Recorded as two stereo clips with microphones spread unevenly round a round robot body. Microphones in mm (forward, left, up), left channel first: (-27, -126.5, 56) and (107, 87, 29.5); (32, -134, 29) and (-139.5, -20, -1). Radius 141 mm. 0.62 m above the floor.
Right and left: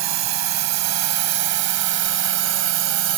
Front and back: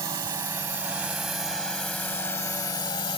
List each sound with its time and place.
0.0 s a drone: 70° left; by 3.2 s 40° left